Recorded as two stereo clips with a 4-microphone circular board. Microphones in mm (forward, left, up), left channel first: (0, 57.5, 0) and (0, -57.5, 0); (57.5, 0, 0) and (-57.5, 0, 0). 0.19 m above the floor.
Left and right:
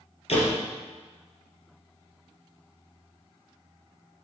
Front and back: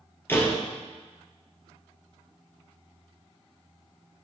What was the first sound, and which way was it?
A door slam, 70° left.